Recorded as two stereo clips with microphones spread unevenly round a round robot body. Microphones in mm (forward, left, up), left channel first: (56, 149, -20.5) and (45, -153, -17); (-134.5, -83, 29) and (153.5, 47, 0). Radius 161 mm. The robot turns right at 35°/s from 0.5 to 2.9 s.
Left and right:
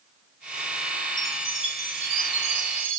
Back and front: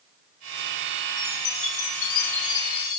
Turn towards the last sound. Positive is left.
turn(degrees=-135)